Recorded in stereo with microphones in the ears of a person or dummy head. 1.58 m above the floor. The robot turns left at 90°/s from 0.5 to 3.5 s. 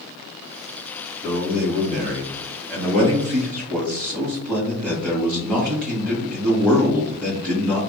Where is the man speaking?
15° left, 1.7 m; by 7.8 s 175° left, 1.7 m.